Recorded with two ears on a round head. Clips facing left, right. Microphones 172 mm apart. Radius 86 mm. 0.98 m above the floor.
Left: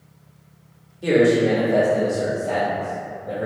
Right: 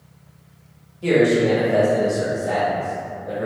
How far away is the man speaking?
About 0.9 m.